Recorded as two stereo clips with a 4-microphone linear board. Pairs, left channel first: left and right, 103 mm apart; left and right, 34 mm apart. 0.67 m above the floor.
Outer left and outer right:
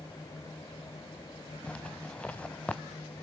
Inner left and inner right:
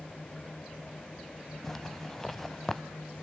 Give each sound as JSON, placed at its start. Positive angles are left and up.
{"t": 1.6, "sound": "a zipper", "side_deg": 10, "distance_m": 0.6}